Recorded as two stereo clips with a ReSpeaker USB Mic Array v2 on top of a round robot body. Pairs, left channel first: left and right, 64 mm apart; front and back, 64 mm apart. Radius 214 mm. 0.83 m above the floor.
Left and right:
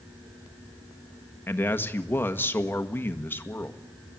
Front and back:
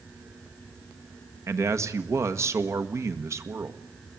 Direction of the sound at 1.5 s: 145° left.